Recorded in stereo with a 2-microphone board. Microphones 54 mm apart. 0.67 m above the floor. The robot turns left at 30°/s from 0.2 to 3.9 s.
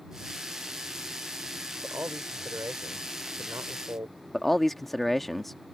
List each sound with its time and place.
1.8 s a man speaking: 45° right; by 4.2 s 105° right
4.3 s a man speaking: 5° left (ahead or behind)